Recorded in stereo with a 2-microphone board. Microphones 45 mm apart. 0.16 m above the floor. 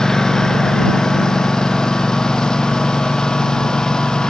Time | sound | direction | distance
0.0 | a lawn mower | 10° left (ahead or behind) | ?